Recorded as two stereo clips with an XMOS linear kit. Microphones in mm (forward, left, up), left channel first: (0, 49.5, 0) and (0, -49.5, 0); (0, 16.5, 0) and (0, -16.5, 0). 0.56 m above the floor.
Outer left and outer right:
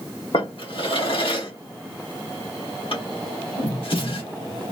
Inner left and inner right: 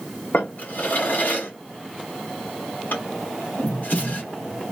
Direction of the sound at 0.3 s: 65° left (ahead or behind).